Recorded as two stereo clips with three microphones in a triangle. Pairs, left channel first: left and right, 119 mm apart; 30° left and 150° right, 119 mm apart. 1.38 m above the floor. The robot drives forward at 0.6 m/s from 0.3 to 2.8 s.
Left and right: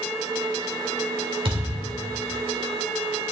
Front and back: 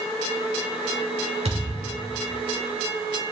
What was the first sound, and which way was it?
A thud, 130° right.